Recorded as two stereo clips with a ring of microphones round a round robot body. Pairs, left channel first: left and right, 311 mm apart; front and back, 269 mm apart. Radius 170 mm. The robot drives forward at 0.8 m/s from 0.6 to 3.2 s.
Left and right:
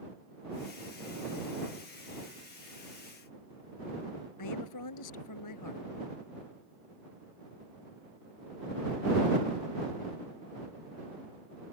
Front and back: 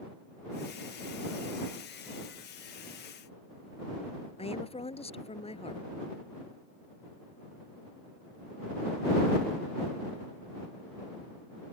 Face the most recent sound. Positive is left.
turn(degrees=65)